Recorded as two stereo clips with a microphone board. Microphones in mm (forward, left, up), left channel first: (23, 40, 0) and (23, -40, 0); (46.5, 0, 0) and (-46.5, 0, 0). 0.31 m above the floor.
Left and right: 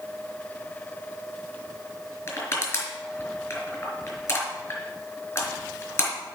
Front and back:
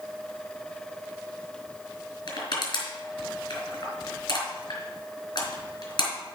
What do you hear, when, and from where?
2.3 s crushing: 30° left, 3.5 m